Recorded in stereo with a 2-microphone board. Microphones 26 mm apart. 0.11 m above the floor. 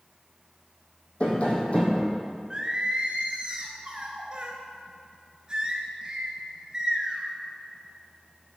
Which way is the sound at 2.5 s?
30° right (ahead or behind).